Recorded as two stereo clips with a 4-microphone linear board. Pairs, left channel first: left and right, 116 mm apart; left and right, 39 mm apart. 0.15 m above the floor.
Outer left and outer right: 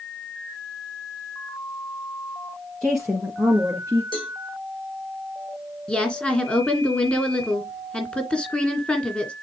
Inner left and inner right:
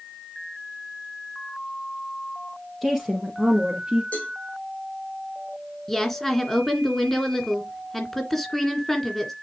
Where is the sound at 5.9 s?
10° left (ahead or behind), 2 m.